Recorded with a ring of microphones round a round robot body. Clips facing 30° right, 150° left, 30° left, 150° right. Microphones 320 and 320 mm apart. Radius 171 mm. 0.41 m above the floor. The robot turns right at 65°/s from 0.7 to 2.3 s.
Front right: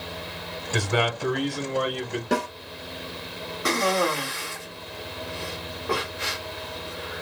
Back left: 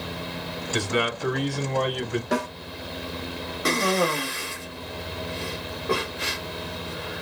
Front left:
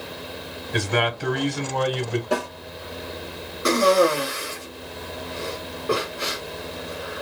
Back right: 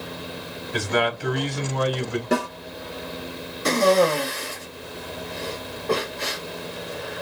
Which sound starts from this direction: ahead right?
A man speaking, at 0.7 s.